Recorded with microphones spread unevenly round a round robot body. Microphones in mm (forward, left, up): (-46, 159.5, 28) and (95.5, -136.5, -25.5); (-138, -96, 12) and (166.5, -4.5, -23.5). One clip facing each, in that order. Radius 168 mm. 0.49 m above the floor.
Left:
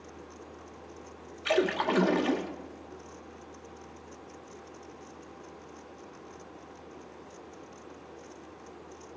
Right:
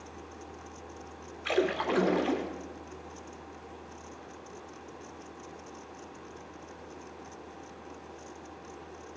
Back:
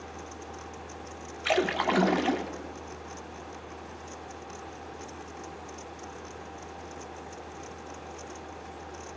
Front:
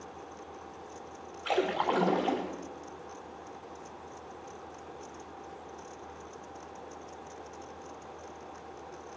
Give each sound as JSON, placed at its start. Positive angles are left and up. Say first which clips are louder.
{"t": 1.4, "sound": "a splash", "louder": "left 1 dB, back 2 dB", "azimuth_deg": -160, "distance_m": 1.0}